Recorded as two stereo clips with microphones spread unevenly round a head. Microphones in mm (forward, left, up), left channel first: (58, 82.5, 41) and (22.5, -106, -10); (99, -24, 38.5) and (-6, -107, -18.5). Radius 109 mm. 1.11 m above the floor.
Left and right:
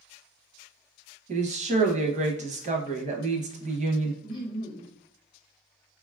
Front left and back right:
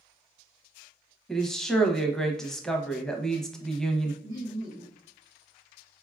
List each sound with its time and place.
1.3 s a woman speaking: 45° right, 0.7 m
4.2 s laughter: 150° left, 1.0 m